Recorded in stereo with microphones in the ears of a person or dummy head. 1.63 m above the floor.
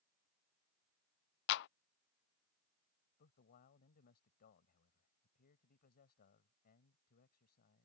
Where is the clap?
60° left (ahead or behind).